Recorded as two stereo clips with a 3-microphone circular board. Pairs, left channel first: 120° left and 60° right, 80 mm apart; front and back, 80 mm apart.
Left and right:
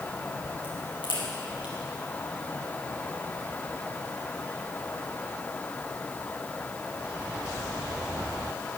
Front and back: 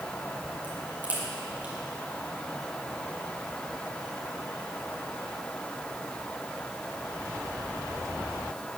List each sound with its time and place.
0.6 s a crack: 110° left, 5.5 m